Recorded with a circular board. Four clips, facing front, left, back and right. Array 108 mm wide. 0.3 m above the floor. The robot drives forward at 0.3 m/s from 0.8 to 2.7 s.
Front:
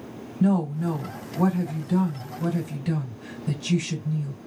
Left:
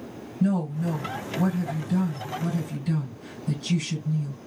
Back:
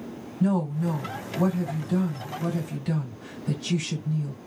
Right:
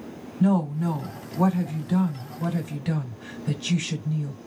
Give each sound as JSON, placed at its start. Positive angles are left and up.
{"t": 0.4, "sound": "a woman speaking", "azimuth_deg": -65, "distance_m": 2.0}